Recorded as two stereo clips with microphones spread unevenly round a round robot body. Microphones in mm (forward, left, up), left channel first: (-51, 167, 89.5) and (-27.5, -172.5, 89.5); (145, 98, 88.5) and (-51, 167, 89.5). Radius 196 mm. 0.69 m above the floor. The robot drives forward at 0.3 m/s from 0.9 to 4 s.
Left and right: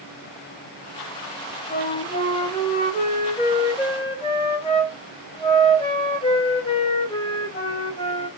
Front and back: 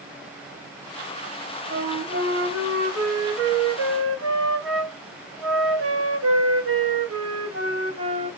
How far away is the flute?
About 0.8 m.